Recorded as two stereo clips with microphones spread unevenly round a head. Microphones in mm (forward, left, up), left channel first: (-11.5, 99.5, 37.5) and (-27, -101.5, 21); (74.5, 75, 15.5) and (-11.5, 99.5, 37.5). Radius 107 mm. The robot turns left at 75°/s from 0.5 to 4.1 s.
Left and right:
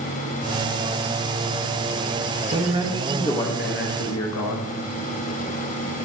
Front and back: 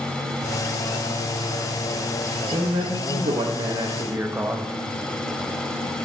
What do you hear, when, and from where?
2.5 s a man speaking: 145° right, 1.3 m; by 4.7 s 95° left, 1.3 m